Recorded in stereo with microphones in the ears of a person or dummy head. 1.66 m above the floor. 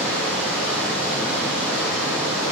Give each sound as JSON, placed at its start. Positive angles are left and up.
{"t": 0.0, "sound": "running water", "side_deg": -10, "distance_m": 2.0}